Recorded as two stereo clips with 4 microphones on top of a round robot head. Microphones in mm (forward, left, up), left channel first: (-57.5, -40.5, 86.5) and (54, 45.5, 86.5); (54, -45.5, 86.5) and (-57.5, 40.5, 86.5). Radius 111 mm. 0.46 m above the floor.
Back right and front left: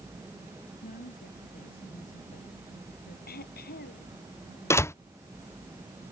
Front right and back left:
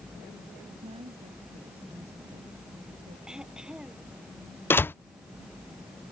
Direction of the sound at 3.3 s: 130° right.